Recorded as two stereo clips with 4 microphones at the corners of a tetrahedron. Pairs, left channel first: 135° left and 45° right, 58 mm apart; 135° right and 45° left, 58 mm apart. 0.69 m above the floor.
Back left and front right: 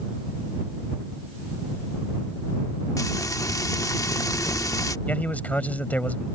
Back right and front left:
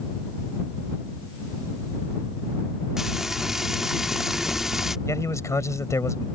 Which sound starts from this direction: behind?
A man speaking, at 5.1 s.